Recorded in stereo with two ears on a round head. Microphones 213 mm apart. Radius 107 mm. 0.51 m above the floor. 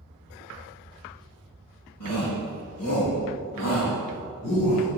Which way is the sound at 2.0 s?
75° left (ahead or behind).